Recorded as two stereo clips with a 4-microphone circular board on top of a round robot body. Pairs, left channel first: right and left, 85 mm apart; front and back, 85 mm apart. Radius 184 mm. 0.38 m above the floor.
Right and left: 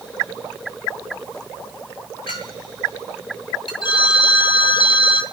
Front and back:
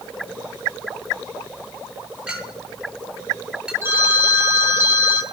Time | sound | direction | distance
2.3 | a clink | 100° right | 7 m
3.8 | a phone ringing | 120° right | 4 m